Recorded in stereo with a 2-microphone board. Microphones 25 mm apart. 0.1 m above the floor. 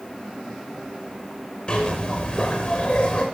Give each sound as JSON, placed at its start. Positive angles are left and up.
{"t": 1.7, "sound": "a zipper", "side_deg": 40, "distance_m": 5.5}